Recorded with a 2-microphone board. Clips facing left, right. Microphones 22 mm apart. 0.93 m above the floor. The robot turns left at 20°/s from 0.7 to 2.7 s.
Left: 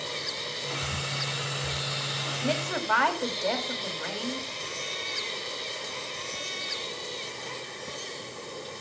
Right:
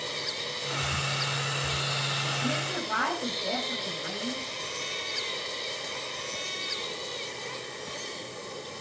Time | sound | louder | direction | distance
2.4 | a woman speaking | left 1 dB | 55° left (ahead or behind) | 4.5 m